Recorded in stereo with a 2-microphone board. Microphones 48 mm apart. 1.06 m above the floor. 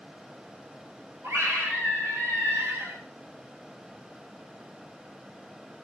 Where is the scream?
70° right (ahead or behind), 7.5 m.